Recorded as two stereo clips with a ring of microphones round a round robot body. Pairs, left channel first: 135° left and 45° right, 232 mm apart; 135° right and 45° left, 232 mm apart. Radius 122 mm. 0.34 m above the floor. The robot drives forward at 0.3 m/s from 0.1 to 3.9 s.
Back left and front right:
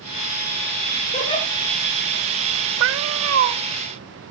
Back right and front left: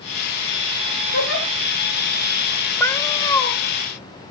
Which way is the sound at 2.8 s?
55° right.